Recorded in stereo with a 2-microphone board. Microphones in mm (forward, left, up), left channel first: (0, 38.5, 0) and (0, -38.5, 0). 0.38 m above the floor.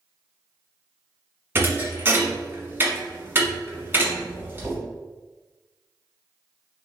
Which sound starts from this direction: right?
A thud, at 1.6 s.